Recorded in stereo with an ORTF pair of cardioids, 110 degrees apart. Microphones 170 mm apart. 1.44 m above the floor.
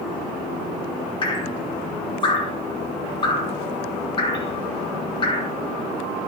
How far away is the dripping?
About 5 m.